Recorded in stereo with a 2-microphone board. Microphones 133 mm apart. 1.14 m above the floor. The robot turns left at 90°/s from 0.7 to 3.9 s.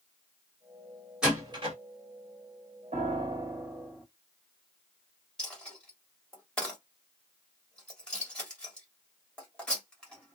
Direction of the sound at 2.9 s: 105° right.